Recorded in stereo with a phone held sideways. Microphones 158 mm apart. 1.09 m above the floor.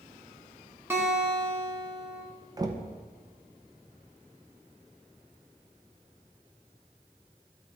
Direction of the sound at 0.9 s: 15° right (ahead or behind).